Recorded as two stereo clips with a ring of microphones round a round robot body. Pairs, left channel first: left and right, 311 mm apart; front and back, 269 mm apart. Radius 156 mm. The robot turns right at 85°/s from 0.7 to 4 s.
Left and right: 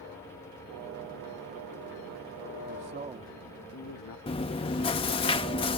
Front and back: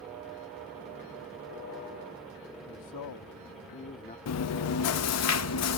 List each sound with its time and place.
2.7 s a man speaking: 50° right; by 4.2 s 60° left
4.3 s chewing: 20° left